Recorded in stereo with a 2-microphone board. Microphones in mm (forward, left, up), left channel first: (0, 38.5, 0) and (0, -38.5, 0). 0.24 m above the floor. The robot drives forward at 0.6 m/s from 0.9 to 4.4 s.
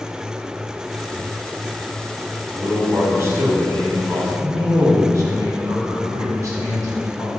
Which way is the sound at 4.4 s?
45° right (ahead or behind).